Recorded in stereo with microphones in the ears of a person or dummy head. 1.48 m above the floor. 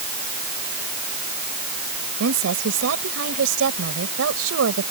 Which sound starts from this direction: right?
A woman speaking, at 2.2 s.